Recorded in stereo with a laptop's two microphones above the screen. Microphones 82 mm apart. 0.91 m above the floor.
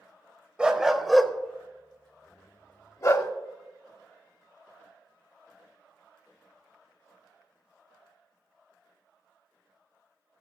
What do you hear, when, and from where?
0.6 s a dog barking: 15° right (ahead or behind), 0.8 m; by 3.3 s 45° left (ahead or behind), 1.1 m